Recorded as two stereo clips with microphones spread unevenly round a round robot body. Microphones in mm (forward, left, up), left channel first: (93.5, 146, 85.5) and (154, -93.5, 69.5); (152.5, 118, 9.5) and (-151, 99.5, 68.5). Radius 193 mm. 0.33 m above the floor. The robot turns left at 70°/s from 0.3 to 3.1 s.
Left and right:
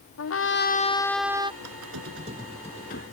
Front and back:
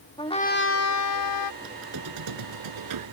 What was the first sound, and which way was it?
A trumpet, 75° left.